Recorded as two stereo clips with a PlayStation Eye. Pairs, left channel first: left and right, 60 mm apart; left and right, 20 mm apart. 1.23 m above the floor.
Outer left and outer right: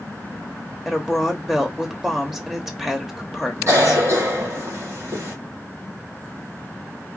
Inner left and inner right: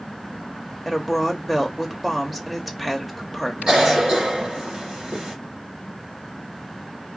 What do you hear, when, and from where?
0.8 s a woman speaking: 5° right (ahead or behind), 0.6 m
3.7 s a cough: 50° right (ahead or behind), 1.4 m